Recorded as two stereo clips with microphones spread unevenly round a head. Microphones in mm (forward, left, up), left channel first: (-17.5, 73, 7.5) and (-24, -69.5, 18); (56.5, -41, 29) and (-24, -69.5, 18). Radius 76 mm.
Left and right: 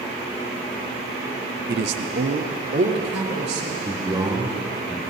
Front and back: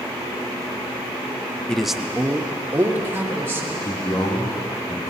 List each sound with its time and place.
1.7 s a man speaking: 60° right, 0.6 m; by 3.8 s 100° right, 3 m
3.9 s a man speaking: 30° right, 3 m